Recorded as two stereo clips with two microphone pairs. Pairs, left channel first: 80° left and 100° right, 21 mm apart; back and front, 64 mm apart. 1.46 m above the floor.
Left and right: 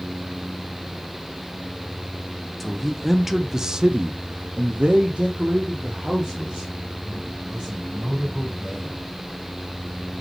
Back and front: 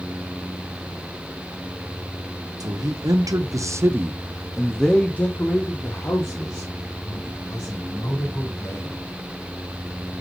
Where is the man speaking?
5° right, 1.3 m; by 9.0 s 145° right, 3.5 m.